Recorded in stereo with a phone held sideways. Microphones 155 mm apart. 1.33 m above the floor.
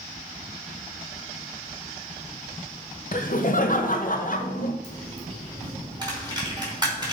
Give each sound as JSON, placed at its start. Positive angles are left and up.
{"t": 3.1, "sound": "laughter", "side_deg": 60, "distance_m": 1.1}
{"t": 4.8, "sound": "a dropped coin", "side_deg": -25, "distance_m": 3.5}